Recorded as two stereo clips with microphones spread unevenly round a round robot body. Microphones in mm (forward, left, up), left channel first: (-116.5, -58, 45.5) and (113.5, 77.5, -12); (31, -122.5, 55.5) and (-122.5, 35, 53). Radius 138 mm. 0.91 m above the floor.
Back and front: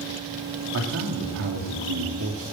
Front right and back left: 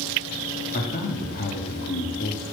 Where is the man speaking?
Straight ahead, 2 m.